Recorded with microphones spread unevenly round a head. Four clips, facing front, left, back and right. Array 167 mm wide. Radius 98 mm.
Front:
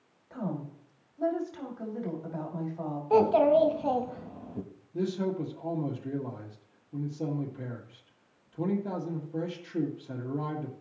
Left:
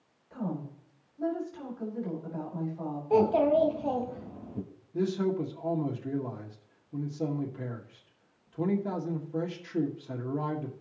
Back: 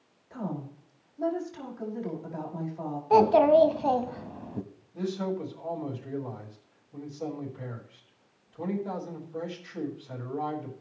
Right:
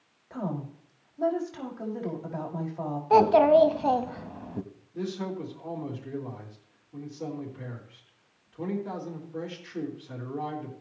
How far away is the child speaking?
About 0.8 m.